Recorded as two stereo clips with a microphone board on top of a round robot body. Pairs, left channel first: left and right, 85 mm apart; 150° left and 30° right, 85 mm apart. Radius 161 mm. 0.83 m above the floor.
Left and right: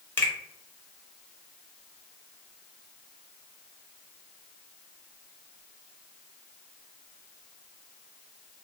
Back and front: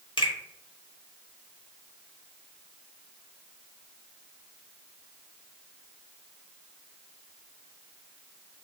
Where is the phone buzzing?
No phone buzzing in this recording.